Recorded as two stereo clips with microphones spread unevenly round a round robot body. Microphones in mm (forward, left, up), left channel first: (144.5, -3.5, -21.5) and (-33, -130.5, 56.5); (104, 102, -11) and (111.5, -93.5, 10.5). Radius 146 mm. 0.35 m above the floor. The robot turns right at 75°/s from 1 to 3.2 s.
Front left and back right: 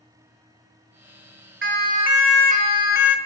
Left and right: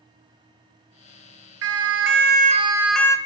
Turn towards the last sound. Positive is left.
turn(degrees=25)